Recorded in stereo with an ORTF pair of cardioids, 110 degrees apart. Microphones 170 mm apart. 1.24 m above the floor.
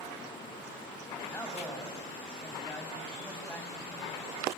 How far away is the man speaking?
About 7 m.